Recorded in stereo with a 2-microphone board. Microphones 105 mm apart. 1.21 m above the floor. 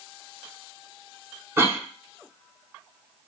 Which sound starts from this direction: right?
A cough, at 1.6 s.